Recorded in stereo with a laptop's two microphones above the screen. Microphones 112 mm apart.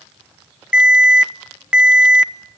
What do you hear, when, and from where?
0.7 s an alarm: 10° right (ahead or behind), 0.7 m